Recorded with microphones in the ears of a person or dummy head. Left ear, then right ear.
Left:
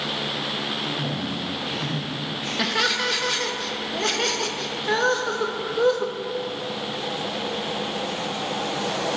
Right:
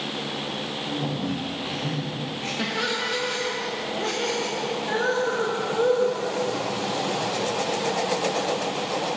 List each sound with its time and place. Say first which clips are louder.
0.8 s a man speaking: left 1 dB; 20° right (ahead or behind), 2.5 m; by 2.5 s 25° right (ahead or behind), 4.5 m
2.6 s laughter: left 5 dB; 30° left (ahead or behind), 1.0 m